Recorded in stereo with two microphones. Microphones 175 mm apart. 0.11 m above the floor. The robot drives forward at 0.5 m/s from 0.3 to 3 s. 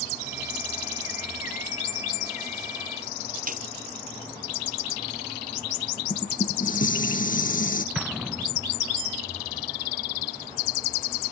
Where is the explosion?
5° right (ahead or behind).